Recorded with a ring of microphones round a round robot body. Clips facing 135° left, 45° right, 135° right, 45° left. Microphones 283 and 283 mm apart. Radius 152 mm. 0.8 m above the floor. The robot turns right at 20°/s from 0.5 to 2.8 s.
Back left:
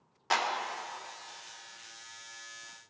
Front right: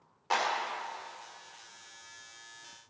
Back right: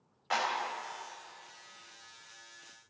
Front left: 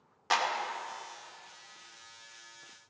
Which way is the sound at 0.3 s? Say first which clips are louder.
Front right 1 dB, front left 2 dB; 75° left.